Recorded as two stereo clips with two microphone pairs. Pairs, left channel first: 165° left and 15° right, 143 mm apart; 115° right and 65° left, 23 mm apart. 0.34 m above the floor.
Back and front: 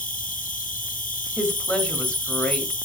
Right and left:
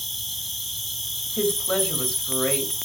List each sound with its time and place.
0.0 s an insect: 155° left, 0.9 m
1.4 s a woman speaking: 110° right, 1.7 m